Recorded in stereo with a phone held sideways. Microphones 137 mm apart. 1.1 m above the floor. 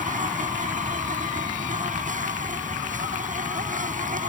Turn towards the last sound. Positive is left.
turn(degrees=-70)  # may be behind; listen again after turning